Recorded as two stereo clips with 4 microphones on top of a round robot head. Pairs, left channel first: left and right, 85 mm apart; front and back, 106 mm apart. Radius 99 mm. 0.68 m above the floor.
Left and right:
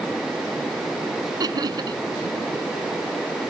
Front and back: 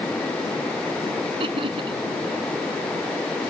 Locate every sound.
1.4 s laughter: 130° right